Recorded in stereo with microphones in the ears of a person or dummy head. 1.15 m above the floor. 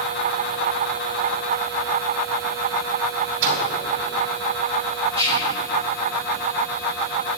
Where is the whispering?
25° right (ahead or behind), 4.5 m.